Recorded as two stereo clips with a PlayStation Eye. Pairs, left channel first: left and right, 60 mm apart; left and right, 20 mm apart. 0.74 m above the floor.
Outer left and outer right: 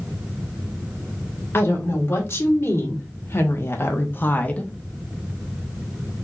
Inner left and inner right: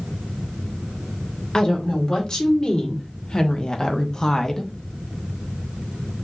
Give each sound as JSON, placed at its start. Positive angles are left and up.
{"t": 1.5, "sound": "a woman speaking", "side_deg": 40, "distance_m": 2.5}